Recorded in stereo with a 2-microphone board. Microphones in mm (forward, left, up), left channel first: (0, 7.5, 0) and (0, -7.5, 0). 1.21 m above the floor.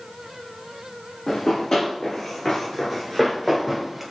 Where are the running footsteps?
45° left (ahead or behind), 1.6 m; by 4.0 s 5° right (ahead or behind), 1.3 m.